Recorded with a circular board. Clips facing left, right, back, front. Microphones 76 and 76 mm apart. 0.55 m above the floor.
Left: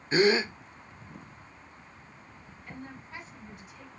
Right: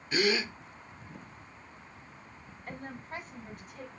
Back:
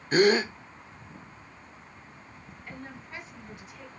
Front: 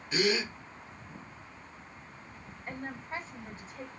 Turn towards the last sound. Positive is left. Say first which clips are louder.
# right 3 dB, front 4 dB
turn(degrees=-55)